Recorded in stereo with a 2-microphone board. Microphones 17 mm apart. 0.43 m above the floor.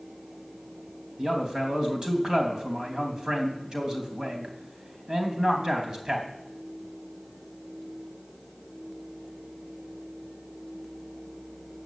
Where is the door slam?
I don't hear a door slam.